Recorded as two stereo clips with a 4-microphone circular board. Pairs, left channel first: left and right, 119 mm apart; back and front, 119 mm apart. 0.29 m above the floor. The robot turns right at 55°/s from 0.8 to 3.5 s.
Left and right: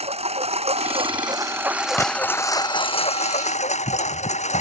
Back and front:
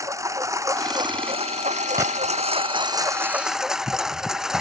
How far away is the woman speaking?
No woman speaking in this recording.